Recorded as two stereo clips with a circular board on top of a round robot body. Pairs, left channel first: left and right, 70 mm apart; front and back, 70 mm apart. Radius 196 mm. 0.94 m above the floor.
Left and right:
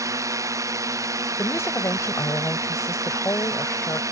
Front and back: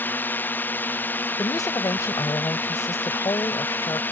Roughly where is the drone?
Ahead right.